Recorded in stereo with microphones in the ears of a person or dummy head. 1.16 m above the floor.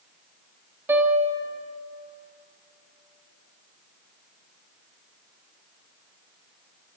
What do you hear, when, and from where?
0.9 s a piano: 10° right (ahead or behind), 1.5 m